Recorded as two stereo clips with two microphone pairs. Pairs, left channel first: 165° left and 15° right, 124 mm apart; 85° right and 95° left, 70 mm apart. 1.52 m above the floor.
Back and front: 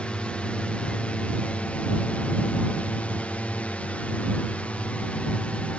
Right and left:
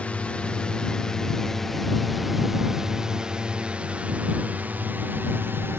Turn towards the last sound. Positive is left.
turn(degrees=95)